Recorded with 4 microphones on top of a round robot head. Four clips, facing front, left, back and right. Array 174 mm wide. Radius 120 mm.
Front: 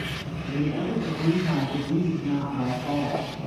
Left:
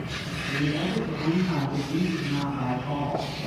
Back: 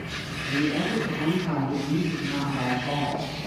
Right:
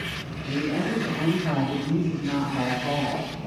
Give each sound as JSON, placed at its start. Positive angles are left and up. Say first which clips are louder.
{"t": 0.5, "sound": "a woman speaking", "louder": "right 2 dB, back 1 dB", "azimuth_deg": -80, "distance_m": 7.5}